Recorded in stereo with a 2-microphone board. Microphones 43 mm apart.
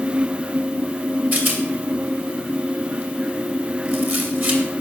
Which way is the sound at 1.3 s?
45° right (ahead or behind).